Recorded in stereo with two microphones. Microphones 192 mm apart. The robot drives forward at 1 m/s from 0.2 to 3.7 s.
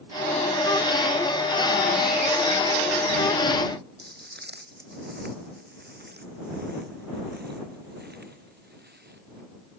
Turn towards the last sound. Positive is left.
turn(degrees=-60)  # may be behind; listen again after turning